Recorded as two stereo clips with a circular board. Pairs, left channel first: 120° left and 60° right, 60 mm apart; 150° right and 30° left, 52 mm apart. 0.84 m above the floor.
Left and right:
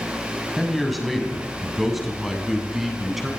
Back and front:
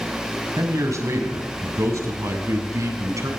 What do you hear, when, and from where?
0.6 s a man speaking: 30° left, 6 m; by 3.3 s 25° left, 7.5 m